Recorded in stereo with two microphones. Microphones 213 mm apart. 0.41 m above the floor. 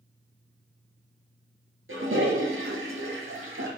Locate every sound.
1.9 s a toilet flushing: 75° right (ahead or behind), 2.5 m